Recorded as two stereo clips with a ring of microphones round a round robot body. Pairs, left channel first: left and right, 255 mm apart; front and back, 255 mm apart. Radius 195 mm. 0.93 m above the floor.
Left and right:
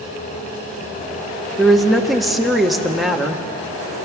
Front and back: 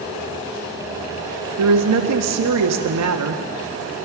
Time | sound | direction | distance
1.6 | a woman speaking | straight behind | 1.7 m